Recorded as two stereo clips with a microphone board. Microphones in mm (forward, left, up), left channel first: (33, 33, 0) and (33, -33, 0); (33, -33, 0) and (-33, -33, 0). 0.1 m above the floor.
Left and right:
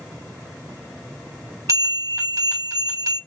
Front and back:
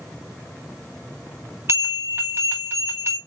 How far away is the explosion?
I don't hear an explosion.